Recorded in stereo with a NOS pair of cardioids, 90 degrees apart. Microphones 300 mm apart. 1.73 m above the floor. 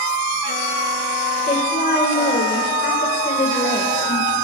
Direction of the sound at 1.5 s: 35° left.